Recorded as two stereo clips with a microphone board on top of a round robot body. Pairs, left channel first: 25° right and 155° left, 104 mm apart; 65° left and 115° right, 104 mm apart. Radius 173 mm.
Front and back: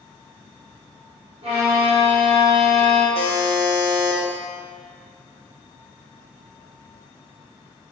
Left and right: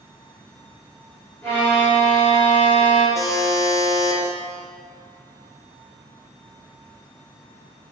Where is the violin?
140° left, 1.0 m.